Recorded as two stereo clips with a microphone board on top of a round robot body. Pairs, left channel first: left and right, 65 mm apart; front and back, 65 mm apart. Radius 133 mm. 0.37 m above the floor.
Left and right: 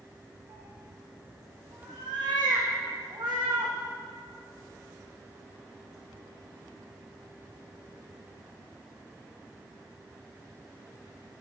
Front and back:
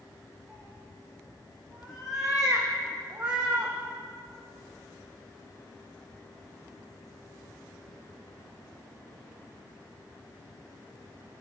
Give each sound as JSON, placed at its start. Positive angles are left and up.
{"t": 0.5, "sound": "a cat meowing", "azimuth_deg": -90, "distance_m": 5.5}